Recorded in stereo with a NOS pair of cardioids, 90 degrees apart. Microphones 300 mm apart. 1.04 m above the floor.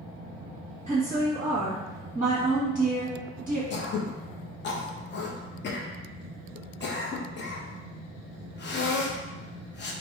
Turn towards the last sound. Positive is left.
turn(degrees=35)